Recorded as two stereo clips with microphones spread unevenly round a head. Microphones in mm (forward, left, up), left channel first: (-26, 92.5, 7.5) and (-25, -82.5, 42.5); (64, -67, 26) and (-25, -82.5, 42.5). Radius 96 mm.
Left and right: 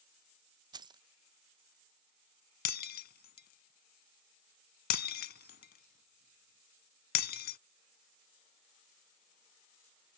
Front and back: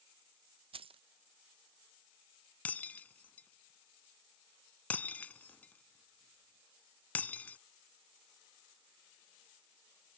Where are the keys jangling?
155° right.